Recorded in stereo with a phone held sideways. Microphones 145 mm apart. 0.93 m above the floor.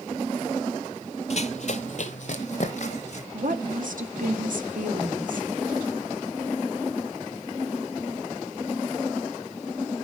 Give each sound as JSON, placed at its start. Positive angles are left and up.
{"t": 1.3, "sound": "running footsteps", "side_deg": 50, "distance_m": 1.3}
{"t": 3.3, "sound": "a woman speaking", "side_deg": -65, "distance_m": 2.5}